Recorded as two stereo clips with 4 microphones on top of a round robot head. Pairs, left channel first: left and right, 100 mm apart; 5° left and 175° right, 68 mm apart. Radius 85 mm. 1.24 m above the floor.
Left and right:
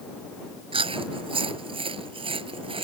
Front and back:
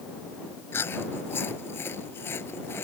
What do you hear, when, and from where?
0.7 s chewing: 60° right